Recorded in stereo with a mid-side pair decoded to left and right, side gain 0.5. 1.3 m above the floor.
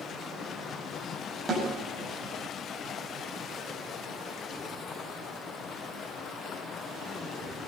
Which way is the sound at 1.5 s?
30° right.